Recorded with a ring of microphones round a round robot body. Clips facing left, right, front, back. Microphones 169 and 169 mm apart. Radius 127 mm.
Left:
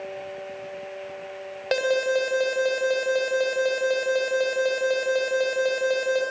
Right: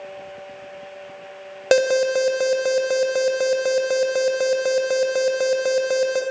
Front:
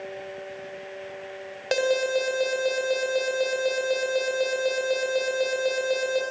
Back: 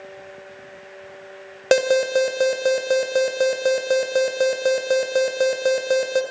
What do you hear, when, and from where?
1.7 s an alarm: 135° right, 2.5 m